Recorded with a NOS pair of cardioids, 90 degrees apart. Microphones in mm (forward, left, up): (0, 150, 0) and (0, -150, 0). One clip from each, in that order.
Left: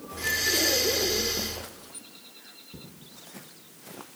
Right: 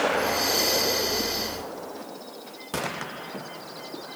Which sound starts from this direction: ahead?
Breathing, at 0.1 s.